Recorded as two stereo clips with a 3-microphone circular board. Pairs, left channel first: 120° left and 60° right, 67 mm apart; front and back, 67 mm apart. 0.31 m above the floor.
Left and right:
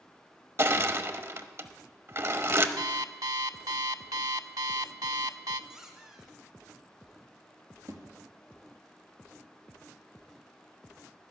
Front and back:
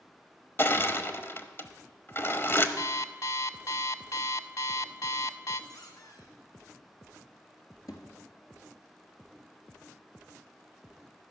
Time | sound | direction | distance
0.6 | crushing | 35° right | 0.9 m
2.8 | an alarm clock | 40° right | 0.6 m
5.7 | a squeak | 20° left | 2.5 m
7.9 | a thud | 30° right | 2.5 m